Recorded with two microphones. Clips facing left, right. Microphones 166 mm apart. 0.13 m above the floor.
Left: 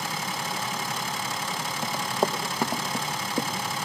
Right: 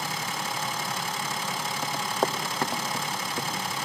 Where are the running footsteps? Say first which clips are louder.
Left 2 dB; centre (ahead or behind), 2 m; by 3.5 s 30° left (ahead or behind), 1.7 m.